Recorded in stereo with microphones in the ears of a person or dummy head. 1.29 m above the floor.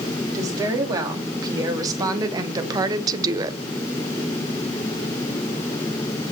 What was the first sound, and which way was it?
A woman speaking, 20° right (ahead or behind).